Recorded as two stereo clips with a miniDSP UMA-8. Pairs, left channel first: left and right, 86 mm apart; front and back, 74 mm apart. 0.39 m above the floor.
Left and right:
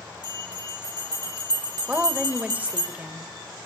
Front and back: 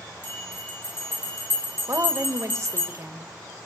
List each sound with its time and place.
0.2 s a bell: 60° right, 4 m
1.9 s a woman speaking: 155° right, 1.3 m